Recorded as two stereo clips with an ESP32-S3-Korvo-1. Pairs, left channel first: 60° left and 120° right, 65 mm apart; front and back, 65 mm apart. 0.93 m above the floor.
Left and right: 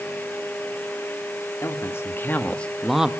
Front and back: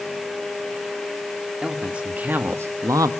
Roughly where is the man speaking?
Left.